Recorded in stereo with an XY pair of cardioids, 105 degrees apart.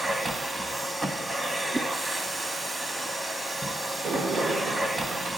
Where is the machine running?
20° right, 1.0 m.